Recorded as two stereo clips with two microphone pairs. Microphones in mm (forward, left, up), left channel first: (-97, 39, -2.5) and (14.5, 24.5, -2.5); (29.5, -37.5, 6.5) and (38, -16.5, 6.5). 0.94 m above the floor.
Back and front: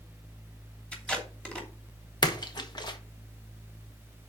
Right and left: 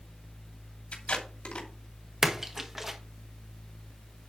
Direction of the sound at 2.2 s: 135° left.